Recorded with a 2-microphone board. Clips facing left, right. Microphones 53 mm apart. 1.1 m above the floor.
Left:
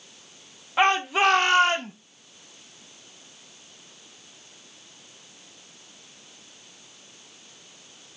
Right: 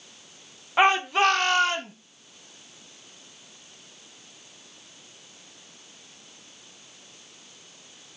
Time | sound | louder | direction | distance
0.8 | a shout | right 1 dB | 10° right (ahead or behind) | 0.9 m